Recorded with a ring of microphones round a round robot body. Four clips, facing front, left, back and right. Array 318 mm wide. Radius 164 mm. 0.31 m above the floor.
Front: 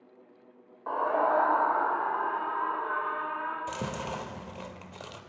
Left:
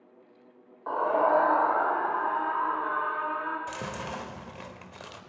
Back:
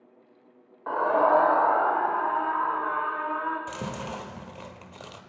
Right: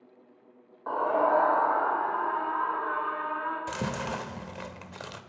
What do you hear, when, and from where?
0.9 s a scream: 165° right, 1.3 m; by 3.6 s 165° left, 4 m
3.7 s chewing: 90° right, 1.6 m